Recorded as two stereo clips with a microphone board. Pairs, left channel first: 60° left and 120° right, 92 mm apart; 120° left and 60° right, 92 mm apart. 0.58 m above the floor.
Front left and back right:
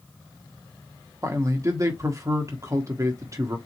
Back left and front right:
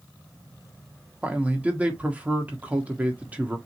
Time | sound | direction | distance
1.2 | a man speaking | 125° right | 1.3 m